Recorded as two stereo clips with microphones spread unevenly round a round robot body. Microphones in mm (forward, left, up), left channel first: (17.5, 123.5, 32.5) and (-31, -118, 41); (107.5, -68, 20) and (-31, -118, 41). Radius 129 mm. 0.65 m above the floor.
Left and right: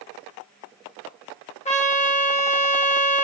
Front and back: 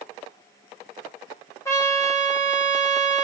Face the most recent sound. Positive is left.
turn(degrees=50)